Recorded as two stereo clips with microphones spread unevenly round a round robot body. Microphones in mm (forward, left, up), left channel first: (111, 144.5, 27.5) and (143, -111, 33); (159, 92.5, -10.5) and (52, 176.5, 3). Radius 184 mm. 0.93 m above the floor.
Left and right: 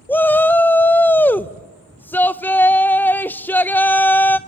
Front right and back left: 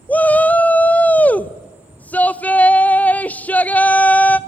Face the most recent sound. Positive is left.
turn(degrees=20)